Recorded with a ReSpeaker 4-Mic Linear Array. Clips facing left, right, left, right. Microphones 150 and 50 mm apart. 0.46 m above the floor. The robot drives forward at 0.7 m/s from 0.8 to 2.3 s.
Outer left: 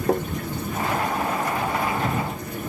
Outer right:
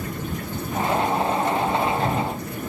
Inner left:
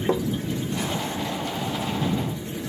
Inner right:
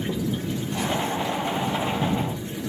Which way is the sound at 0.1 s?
85° left.